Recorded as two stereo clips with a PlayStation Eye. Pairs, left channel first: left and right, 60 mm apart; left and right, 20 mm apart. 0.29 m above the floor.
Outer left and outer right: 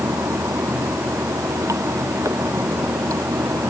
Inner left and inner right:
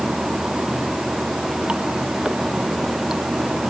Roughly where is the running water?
Right.